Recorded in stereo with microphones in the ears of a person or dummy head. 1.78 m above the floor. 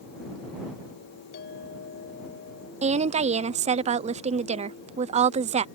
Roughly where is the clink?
Left.